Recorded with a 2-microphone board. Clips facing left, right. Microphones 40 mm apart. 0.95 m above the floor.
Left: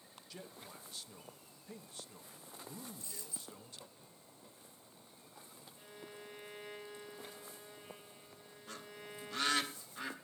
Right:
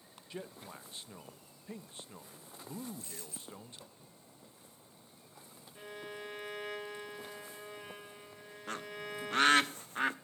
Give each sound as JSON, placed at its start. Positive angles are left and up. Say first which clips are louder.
{"t": 0.3, "sound": "a man speaking", "louder": "right 6 dB", "side_deg": -30, "distance_m": 0.8}
{"t": 3.0, "sound": "a dropped coin", "louder": "right 2 dB", "side_deg": -50, "distance_m": 4.5}
{"t": 5.8, "sound": "a violin", "louder": "right 8 dB", "side_deg": -80, "distance_m": 1.3}
{"t": 8.7, "sound": "a bird", "louder": "right 9 dB", "side_deg": -50, "distance_m": 0.7}